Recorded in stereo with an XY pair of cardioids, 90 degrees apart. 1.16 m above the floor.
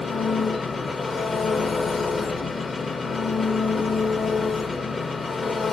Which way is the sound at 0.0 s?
40° left.